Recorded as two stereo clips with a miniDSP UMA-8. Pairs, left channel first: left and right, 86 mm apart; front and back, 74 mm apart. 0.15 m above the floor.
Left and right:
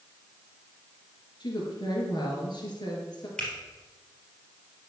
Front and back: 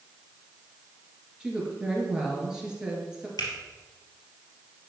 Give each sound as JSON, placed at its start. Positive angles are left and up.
{"t": 1.4, "sound": "a woman speaking", "azimuth_deg": 100, "distance_m": 2.5}
{"t": 3.4, "sound": "a finger snap", "azimuth_deg": 10, "distance_m": 3.0}